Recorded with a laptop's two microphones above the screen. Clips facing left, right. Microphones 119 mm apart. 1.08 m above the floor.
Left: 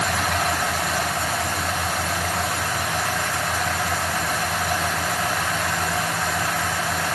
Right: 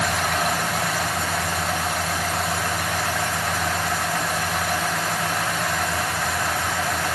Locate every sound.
Only background noise.